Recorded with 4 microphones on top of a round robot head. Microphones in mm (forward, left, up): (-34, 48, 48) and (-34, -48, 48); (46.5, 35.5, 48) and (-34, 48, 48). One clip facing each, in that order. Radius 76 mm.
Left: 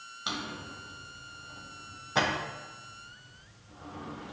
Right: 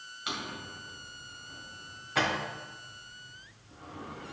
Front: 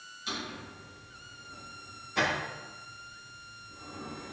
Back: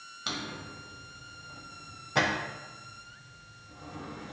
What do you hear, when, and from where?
0.3 s a drawer: 155° left, 1.6 m